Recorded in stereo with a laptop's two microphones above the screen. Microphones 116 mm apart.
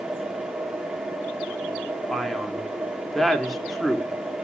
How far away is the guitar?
No guitar in this recording.